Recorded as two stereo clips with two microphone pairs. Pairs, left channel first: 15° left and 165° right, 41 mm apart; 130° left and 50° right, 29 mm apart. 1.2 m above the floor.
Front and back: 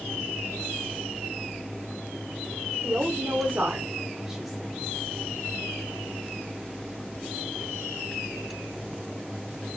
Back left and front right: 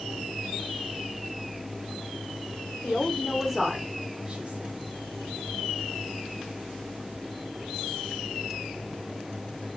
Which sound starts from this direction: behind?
A woman speaking, at 2.8 s.